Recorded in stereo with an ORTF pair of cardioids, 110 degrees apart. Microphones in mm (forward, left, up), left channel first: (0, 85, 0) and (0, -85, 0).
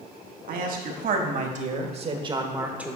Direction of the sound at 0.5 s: 65° right.